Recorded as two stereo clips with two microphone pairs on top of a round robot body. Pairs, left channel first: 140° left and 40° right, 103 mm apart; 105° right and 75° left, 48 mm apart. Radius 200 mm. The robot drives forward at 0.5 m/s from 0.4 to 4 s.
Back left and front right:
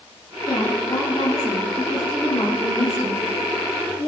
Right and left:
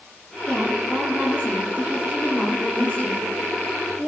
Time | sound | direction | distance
0.5 | a woman speaking | 170° right | 2.5 m